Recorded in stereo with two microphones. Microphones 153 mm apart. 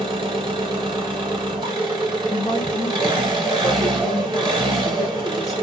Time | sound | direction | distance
0.0 | an engine running | 30° right (ahead or behind) | 0.8 m
2.3 | a woman speaking | 20° left (ahead or behind) | 0.9 m